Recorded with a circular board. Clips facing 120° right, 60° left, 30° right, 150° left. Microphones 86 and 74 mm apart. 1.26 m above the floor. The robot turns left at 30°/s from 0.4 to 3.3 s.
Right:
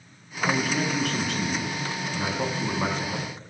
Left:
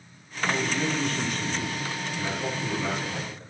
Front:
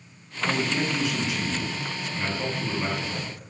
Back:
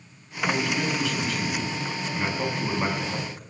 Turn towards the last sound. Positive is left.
turn(degrees=-170)